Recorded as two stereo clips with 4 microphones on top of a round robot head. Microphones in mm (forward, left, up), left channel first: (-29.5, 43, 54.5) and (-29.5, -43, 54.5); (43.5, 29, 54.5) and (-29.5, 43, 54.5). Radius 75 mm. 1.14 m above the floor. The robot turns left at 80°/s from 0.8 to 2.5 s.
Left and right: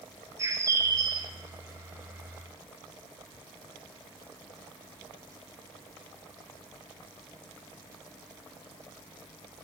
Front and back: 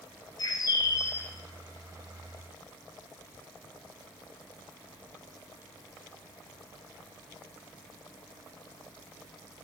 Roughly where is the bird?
Ahead right.